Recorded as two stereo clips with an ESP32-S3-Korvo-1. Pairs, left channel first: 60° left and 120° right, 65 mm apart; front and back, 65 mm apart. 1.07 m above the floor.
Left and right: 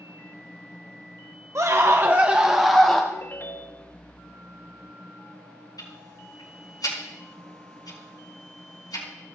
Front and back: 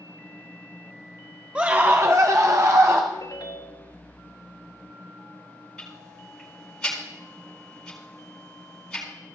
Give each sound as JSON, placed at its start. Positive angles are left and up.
{"t": 1.6, "sound": "a scream", "azimuth_deg": -115, "distance_m": 0.7}
{"t": 3.1, "sound": "a ringtone", "azimuth_deg": 10, "distance_m": 0.7}
{"t": 5.8, "sound": "ticking", "azimuth_deg": 75, "distance_m": 5.0}